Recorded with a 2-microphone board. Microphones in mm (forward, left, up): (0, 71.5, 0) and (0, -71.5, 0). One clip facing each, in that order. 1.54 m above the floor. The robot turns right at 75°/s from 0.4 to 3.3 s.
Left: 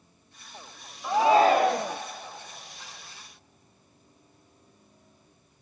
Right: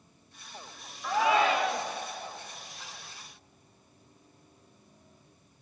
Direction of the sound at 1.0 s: 20° left.